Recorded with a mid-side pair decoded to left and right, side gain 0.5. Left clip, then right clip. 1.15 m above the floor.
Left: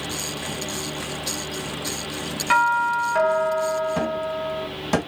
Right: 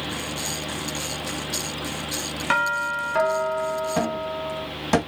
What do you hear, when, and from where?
0.0 s a fan: 10° right, 1.1 m
2.5 s a doorbell: 10° right, 1.3 m
4.0 s a cupboard door: 10° right, 0.9 m